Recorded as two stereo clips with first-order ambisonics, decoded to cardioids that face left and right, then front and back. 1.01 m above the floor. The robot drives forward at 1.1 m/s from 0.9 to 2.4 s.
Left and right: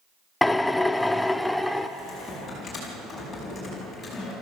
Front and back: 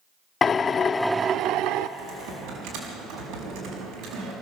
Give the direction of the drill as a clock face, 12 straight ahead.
12 o'clock.